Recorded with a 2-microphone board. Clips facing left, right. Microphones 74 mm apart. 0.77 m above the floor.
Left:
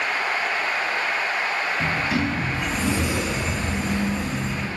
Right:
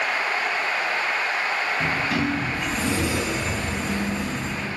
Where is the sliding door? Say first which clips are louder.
Even; 5° left (ahead or behind), 6 m.